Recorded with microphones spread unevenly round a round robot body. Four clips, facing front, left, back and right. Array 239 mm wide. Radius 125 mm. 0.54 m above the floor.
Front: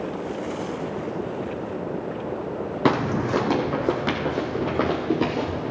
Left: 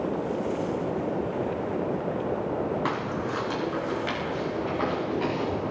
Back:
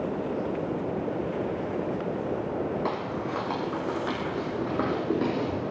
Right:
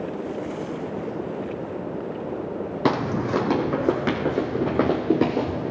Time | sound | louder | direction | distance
2.9 | footsteps | right 6 dB, front 8 dB | 25° right | 1.4 m